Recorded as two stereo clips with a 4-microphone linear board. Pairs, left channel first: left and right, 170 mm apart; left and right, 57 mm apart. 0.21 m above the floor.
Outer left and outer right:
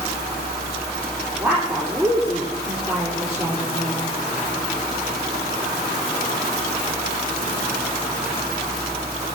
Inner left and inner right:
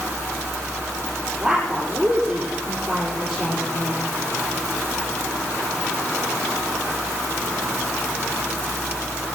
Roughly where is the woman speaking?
Centre.